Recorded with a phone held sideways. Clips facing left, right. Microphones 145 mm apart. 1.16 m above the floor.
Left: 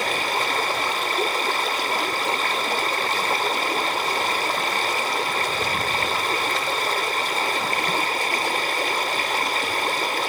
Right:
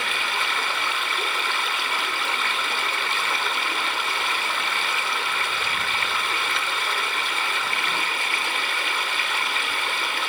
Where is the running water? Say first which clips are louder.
Left 5 dB; 40° left (ahead or behind), 1.1 m.